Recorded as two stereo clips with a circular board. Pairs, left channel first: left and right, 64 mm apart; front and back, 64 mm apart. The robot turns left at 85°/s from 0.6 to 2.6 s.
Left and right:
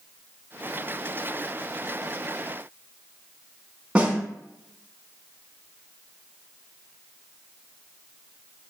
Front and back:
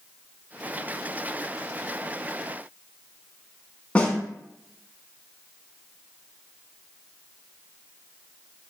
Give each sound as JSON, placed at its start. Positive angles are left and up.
{"t": 4.0, "sound": "a snare drum", "azimuth_deg": -45, "distance_m": 0.5}